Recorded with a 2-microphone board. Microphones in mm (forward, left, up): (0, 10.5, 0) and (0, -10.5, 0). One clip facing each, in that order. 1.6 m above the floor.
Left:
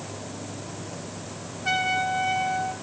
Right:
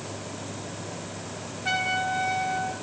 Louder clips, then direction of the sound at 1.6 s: Left 2 dB; 5° right (ahead or behind).